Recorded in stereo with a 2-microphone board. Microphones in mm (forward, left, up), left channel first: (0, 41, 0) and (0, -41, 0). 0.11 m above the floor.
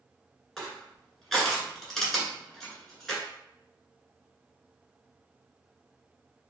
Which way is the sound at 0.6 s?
5° left (ahead or behind).